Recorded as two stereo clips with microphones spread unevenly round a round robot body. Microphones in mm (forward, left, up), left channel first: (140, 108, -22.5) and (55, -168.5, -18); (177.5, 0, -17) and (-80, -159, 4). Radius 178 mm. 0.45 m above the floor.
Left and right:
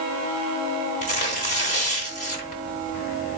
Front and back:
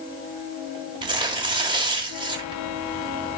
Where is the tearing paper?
135° left, 1.0 m.